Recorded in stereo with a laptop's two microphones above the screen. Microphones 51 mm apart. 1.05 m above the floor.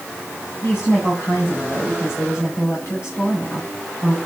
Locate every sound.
0.6 s a woman speaking: 55° left (ahead or behind), 6.5 m